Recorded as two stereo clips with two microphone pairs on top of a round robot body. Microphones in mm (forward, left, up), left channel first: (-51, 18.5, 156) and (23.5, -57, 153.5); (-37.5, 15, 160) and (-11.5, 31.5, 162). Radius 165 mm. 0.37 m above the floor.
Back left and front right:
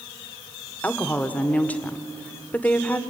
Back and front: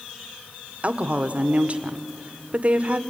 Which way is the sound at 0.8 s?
60° left.